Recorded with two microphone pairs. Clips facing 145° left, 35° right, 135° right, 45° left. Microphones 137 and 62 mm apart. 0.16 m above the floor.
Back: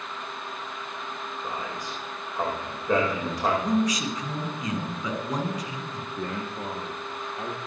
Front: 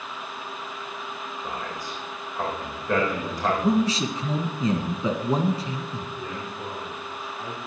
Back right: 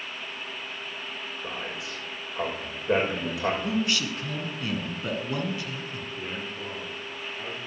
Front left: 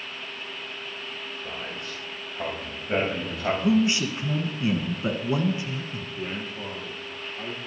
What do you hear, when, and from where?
1.4 s a man speaking: 140° right, 8.5 m
3.6 s a man speaking: 5° right, 1.3 m
6.2 s a man speaking: 125° left, 3.5 m